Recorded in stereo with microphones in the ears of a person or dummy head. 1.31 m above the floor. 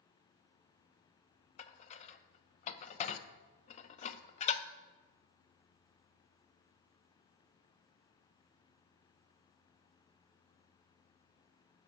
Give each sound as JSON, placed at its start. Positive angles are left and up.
{"t": 1.6, "sound": "dishes clattering", "side_deg": 30, "distance_m": 0.6}